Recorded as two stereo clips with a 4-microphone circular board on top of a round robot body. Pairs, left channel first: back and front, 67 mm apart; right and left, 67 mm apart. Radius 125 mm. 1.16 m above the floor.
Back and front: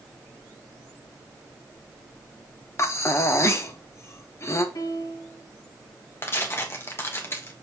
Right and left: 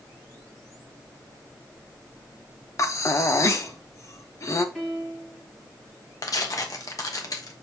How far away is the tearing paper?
About 1.5 m.